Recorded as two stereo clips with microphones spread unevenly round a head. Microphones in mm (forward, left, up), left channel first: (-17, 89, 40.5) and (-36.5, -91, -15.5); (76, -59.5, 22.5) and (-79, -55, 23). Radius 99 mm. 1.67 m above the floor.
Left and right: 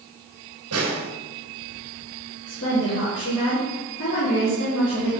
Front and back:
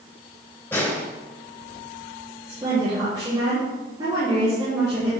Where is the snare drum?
80° right, 3.5 m.